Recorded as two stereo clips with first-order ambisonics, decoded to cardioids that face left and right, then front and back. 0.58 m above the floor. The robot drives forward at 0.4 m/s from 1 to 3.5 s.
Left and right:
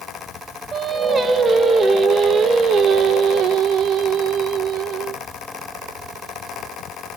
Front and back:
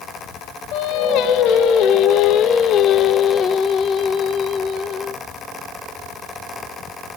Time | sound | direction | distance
0.7 | singing | 20° right | 1.5 m